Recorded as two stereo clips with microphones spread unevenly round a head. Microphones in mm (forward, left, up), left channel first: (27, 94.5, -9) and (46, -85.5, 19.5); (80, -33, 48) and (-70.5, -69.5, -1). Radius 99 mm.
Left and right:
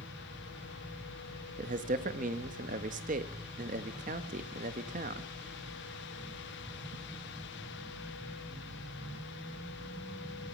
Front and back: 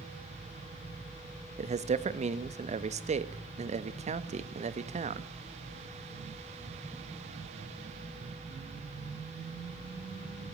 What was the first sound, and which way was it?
A man speaking, 140° right.